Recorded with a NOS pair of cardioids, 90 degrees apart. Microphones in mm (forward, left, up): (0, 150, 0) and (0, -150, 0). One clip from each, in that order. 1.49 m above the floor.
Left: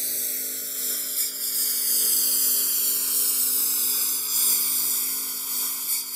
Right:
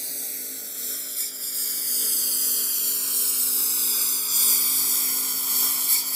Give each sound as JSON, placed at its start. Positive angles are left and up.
{"t": 0.0, "sound": "a lawn mower", "azimuth_deg": 25}